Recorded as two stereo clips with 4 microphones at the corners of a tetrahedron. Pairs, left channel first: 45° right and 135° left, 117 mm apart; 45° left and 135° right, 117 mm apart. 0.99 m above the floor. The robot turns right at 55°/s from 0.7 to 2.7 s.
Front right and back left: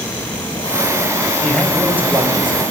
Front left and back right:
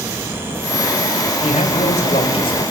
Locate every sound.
1.4 s a man speaking: 25° left, 5 m; by 2.6 s 95° left, 5 m